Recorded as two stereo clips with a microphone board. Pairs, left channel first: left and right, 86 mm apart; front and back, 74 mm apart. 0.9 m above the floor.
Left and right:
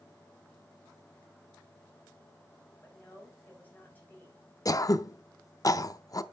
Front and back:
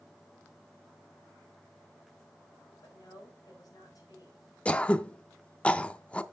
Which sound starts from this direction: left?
Throat clearing, at 4.7 s.